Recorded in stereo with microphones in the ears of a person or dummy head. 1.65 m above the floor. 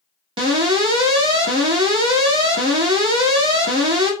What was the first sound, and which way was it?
An alarm, 30° right (ahead or behind).